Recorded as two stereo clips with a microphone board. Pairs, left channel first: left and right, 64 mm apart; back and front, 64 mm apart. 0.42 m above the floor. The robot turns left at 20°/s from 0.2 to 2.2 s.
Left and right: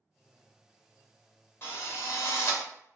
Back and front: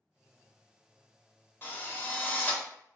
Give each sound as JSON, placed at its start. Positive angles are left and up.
{"t": 1.6, "sound": "a drill", "azimuth_deg": 135, "distance_m": 0.7}